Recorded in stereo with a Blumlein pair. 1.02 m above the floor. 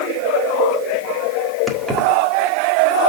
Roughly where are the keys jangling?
Ahead.